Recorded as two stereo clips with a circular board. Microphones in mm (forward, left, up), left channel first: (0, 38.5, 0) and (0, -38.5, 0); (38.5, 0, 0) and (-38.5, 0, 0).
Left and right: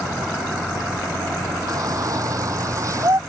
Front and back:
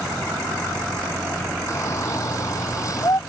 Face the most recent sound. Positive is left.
turn(degrees=-45)